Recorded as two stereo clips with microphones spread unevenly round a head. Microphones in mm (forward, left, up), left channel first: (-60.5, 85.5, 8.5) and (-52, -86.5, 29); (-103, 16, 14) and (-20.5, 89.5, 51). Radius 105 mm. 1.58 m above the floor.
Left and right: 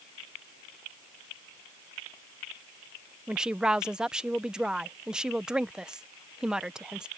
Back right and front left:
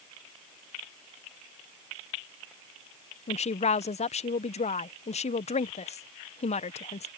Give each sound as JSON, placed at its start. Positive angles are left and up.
{"t": 3.3, "sound": "a woman speaking", "azimuth_deg": -170}